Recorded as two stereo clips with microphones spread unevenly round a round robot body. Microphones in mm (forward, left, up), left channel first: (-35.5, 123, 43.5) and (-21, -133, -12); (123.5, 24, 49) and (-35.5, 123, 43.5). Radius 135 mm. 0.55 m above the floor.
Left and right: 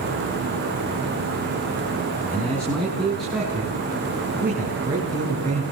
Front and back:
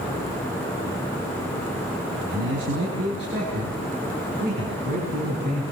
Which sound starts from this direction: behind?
A man speaking, at 2.3 s.